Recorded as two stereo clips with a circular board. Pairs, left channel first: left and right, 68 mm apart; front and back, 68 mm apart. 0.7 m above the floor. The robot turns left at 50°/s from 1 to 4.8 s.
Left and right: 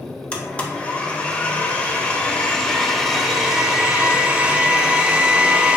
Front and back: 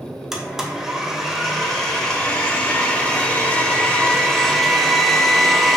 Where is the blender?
110° left, 0.6 m; by 5.8 s 80° right, 0.6 m.